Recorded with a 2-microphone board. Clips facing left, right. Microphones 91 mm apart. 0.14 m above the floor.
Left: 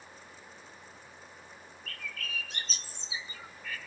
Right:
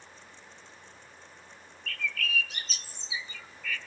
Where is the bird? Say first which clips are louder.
Right 8 dB; 35° left (ahead or behind), 0.8 m.